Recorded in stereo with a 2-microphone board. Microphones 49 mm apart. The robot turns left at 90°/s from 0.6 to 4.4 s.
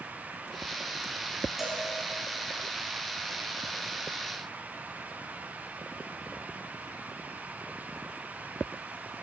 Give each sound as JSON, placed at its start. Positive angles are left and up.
{"t": 1.6, "sound": "a cowbell", "side_deg": -5, "distance_m": 2.0}